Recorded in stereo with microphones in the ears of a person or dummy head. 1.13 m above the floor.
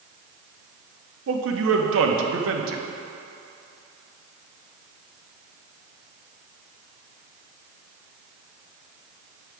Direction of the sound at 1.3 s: 70° right (ahead or behind).